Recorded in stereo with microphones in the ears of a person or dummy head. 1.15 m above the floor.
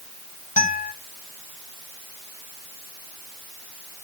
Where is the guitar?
45° left (ahead or behind), 2 m.